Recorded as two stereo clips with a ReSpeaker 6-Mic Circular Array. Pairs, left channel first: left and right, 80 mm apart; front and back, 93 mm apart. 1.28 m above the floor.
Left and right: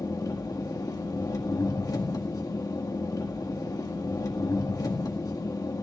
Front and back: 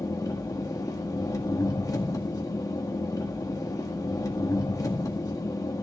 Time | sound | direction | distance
0.0 | an engine running | 50° left | 1.8 m